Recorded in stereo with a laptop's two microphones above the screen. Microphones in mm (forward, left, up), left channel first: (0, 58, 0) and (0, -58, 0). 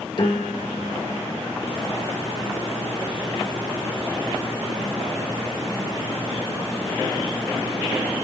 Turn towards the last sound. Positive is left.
turn(degrees=50)  # may be behind; listen again after turning